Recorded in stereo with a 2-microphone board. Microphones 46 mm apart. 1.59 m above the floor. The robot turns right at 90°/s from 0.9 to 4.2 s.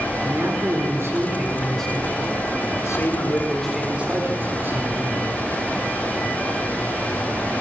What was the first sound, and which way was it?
A man speaking, 75° right.